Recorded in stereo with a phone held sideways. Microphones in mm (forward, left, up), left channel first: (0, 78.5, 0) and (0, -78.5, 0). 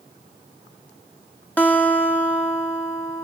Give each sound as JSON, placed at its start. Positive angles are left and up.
{"t": 1.6, "sound": "a guitar", "side_deg": 10, "distance_m": 1.5}